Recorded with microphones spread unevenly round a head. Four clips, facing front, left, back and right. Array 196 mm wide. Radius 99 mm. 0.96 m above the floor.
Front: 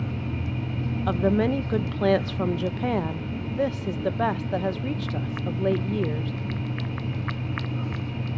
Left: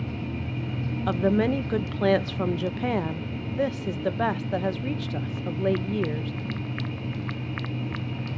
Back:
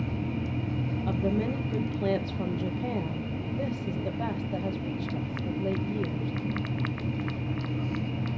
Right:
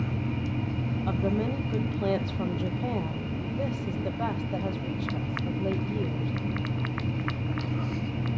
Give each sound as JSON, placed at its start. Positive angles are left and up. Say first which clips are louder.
{"t": 1.1, "sound": "a woman speaking", "louder": "left 7 dB, front 7 dB", "azimuth_deg": 50, "distance_m": 0.9}